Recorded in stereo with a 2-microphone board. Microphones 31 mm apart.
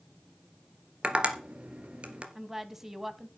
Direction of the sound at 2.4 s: 15° right (ahead or behind).